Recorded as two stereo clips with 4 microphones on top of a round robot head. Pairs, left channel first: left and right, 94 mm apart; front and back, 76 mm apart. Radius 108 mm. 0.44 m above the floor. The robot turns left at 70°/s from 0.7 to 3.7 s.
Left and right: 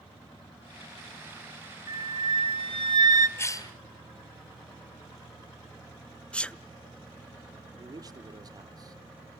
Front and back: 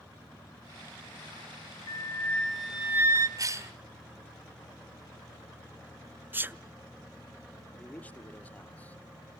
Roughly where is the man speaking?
Ahead right.